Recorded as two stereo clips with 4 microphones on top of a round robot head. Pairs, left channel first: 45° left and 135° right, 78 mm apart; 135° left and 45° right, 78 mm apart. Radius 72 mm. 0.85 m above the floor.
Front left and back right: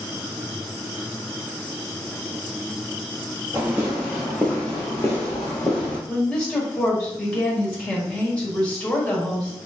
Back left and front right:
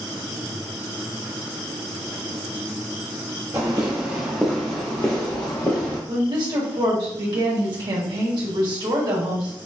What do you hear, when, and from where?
3.5 s footsteps: 80° right, 0.9 m; by 6.0 s 90° left, 1.2 m
6.1 s a woman speaking: 30° right, 1.4 m